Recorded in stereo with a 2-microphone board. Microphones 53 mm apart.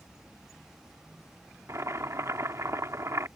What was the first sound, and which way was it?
Boiling, 70° right (ahead or behind).